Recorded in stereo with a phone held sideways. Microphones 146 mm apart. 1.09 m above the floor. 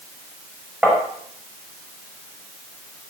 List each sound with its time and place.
0.8 s tapping: 5° right (ahead or behind), 5 m